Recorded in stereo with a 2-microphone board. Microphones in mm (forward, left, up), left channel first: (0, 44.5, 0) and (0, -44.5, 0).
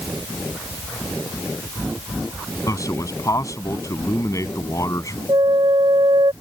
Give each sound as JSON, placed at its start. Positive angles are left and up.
{"t": 2.7, "sound": "a man speaking", "side_deg": 40}
{"t": 5.3, "sound": "a flute", "side_deg": -60}